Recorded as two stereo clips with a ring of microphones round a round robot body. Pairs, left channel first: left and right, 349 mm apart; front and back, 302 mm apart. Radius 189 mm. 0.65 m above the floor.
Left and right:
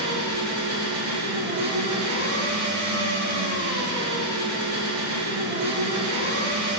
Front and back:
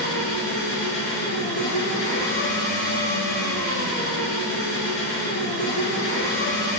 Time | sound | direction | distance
0.0 | an engine running | 40° right | 5 m